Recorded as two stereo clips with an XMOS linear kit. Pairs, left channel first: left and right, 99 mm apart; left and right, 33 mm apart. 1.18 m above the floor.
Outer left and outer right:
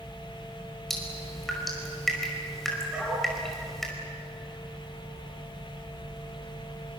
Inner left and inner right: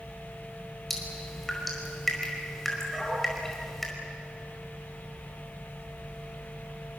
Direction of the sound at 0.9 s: 5° left (ahead or behind).